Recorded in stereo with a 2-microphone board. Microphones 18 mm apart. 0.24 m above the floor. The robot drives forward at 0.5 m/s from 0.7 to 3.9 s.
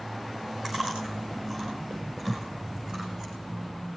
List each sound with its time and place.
0.6 s chewing: 30° right (ahead or behind), 7 m; by 3.3 s 35° right (ahead or behind), 6 m
2.3 s a thud: 15° right (ahead or behind), 6 m; by 3.6 s 10° right (ahead or behind), 6.5 m